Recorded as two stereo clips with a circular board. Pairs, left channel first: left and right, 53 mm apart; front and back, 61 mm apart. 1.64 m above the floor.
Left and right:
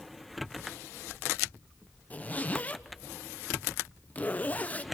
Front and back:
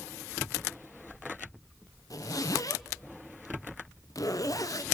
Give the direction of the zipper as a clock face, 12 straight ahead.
11 o'clock.